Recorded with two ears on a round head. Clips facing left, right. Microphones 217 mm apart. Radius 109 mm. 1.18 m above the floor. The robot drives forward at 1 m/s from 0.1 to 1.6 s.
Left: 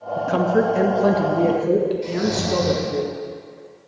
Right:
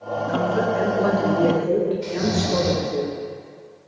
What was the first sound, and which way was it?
A woman speaking, 65° left (ahead or behind).